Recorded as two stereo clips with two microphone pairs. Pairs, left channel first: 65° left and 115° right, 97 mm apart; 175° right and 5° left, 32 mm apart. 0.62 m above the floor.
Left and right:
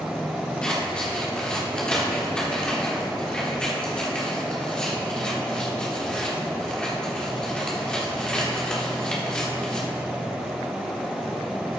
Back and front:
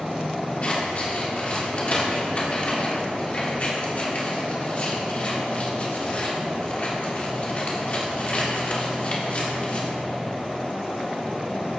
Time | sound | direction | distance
0.6 | scissors | 145° left | 1.5 m